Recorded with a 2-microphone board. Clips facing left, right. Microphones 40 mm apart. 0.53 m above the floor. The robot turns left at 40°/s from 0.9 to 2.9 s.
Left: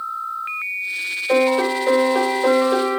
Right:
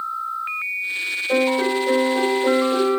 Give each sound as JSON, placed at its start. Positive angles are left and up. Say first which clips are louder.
{"t": 1.3, "sound": "a piano", "louder": "left 3 dB", "azimuth_deg": 130, "distance_m": 2.5}